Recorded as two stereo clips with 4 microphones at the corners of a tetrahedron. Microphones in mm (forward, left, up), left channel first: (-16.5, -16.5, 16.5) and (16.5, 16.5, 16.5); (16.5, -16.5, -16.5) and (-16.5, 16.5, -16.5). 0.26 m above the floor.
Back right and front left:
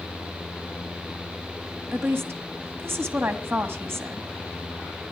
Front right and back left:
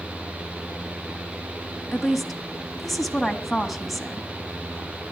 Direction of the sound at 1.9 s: 45° left.